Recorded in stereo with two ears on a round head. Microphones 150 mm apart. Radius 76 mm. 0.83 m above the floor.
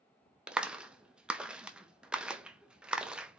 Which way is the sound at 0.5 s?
5° right (ahead or behind).